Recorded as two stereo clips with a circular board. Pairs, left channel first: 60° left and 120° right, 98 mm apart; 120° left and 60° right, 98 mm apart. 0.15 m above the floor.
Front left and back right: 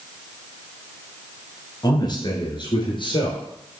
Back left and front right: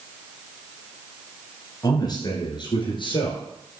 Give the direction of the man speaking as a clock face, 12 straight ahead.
9 o'clock.